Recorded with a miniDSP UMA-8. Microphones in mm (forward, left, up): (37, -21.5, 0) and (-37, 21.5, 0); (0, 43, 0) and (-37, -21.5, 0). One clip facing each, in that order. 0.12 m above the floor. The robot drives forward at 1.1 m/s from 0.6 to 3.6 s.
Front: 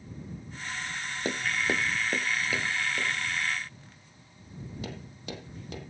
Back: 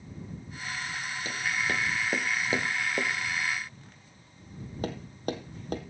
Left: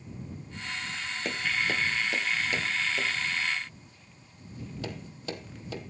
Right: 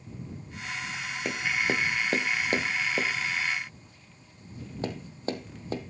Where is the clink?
I don't hear a clink.